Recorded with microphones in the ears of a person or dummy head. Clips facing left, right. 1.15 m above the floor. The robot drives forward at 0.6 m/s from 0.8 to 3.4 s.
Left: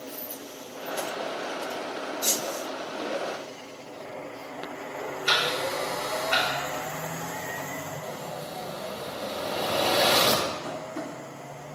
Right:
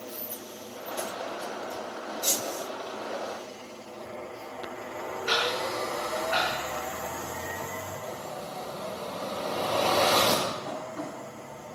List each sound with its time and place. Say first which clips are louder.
5.3 s ticking: even; 60° left (ahead or behind), 3 m
8.0 s an explosion: left 1 dB; 10° left (ahead or behind), 1.6 m
10.6 s tapping: left 1 dB; 65° left (ahead or behind), 2 m